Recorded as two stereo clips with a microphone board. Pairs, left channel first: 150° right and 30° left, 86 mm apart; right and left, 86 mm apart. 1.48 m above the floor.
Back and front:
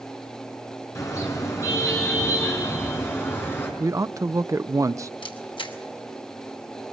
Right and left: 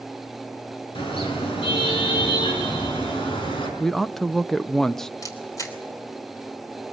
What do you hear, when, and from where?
0.9 s a car horn: 95° right, 7 m; by 3.7 s 85° right, 6 m
3.8 s a man speaking: 5° right, 0.5 m
5.2 s a camera shutter: 140° right, 3 m